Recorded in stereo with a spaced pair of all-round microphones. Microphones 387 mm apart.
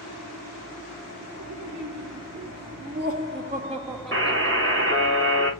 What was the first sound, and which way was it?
Laughter, 55° right (ahead or behind).